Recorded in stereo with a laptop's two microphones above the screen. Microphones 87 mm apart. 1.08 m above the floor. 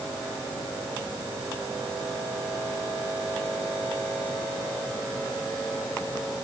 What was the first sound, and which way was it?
Only background noise.